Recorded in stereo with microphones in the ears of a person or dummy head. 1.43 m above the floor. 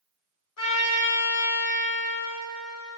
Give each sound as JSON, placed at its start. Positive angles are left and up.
{"t": 0.6, "sound": "a trumpet", "side_deg": 75, "distance_m": 1.4}